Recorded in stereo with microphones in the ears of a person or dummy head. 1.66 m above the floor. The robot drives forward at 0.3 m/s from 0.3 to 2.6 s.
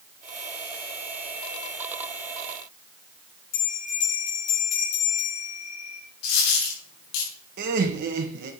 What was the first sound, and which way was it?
A bell, 60° left (ahead or behind).